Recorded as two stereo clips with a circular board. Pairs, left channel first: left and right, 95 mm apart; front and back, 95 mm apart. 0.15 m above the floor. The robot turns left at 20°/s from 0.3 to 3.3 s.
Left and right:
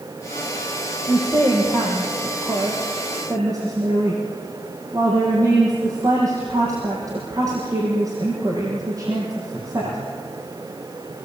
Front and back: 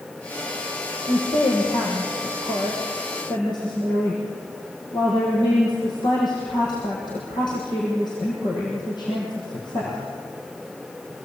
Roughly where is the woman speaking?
Ahead.